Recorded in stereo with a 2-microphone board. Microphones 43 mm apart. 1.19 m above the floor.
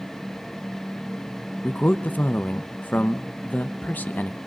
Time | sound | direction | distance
1.6 | a man speaking | 40° left (ahead or behind) | 0.8 m